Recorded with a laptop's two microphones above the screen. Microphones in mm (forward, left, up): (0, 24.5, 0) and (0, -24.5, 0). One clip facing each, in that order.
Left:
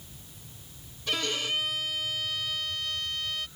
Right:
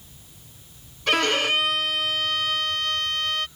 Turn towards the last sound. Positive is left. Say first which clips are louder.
# right 9 dB
turn(degrees=-75)  # may be behind; listen again after turning